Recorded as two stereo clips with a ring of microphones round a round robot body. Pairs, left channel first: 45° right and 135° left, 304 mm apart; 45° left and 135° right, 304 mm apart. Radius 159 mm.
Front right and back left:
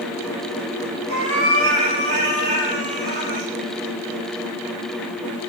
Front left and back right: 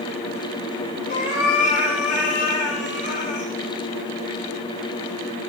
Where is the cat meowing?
105° left, 5.5 m.